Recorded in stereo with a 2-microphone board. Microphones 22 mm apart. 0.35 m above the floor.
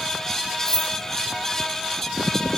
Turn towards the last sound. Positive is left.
turn(degrees=-20)  # may be behind; listen again after turning